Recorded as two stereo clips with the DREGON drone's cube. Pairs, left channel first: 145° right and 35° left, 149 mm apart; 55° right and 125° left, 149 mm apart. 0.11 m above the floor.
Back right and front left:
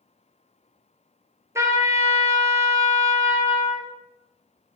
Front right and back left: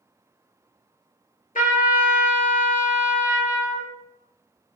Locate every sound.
1.6 s a trumpet: 35° right, 0.8 m